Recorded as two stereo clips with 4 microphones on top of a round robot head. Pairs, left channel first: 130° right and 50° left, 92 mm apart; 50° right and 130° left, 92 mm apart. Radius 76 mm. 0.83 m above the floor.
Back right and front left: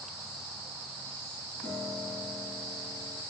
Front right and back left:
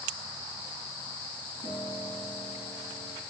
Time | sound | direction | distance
1.6 | a piano | 50° right | 3 m